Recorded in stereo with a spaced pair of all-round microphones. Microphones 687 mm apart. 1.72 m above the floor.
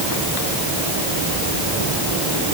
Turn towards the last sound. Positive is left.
No sound to turn to.